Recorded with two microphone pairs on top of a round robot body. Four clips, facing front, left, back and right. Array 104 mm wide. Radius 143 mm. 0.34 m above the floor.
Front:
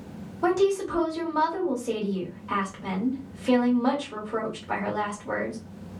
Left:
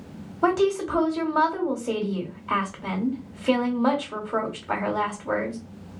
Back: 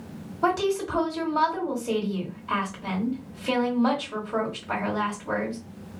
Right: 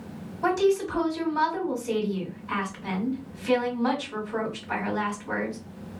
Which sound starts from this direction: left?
A woman speaking, at 0.4 s.